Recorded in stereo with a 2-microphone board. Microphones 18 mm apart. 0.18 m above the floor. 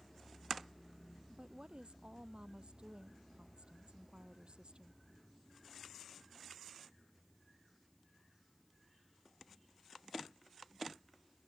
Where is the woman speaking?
65° right (ahead or behind).